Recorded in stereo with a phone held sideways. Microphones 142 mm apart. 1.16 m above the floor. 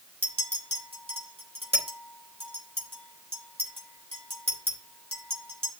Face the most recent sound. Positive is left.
turn(degrees=-40)  # may be behind; listen again after turning